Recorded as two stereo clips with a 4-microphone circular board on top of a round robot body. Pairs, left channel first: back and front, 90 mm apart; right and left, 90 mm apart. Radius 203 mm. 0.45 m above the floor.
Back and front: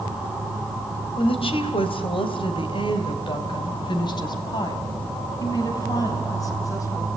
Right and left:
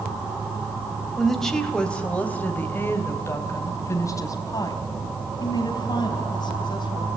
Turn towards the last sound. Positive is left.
turn(degrees=-130)